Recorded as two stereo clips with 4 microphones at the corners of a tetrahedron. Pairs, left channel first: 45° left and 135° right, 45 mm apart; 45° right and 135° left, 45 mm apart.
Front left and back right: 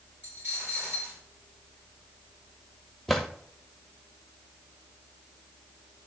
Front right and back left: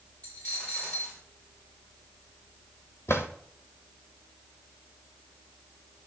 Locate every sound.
0.2 s a dropped coin: 100° right, 6 m
3.1 s a drawer: 50° right, 1.1 m